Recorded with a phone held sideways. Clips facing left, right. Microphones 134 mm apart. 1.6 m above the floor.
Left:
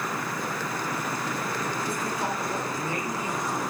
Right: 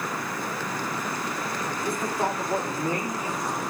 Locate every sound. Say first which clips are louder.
1.8 s a man speaking: right 3 dB; 50° right (ahead or behind), 2.5 m; by 3.6 s 30° right (ahead or behind), 3.5 m